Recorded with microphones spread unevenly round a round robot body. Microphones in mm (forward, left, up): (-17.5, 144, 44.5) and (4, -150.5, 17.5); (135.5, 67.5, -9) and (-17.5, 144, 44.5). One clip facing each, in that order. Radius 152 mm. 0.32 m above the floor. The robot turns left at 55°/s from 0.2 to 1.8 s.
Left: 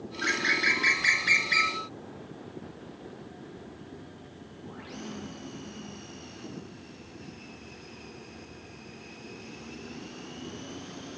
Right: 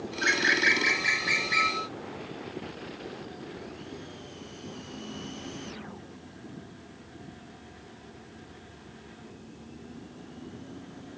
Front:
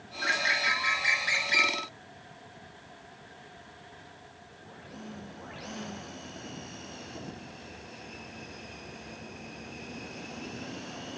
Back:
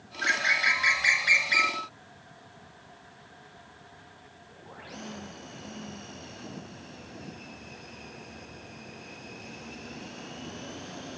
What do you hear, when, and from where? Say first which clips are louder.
0.2 s a bird: right 3 dB, even; 175° right, 0.7 m; by 1.8 s 100° left, 0.7 m